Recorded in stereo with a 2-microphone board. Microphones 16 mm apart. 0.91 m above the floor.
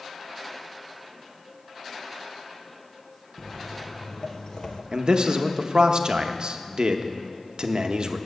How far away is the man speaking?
About 0.8 m.